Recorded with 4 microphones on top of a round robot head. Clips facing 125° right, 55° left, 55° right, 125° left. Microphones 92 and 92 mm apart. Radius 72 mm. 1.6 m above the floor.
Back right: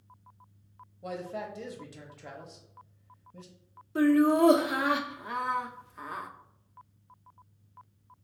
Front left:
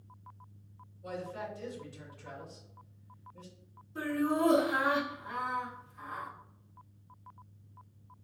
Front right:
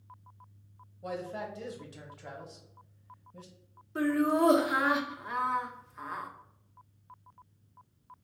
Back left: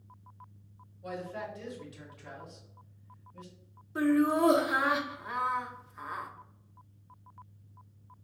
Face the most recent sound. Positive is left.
turn(degrees=-150)